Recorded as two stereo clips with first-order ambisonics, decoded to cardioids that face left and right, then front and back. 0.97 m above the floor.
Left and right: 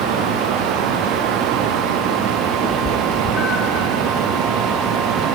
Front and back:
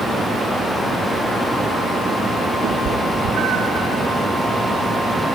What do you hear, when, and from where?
2.6 s a cat meowing: 175° right, 4 m; by 3.9 s 175° left, 3 m